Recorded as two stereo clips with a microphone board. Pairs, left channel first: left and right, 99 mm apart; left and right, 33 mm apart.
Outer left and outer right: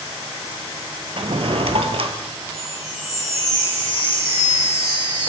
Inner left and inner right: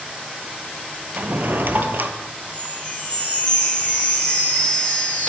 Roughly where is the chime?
Left.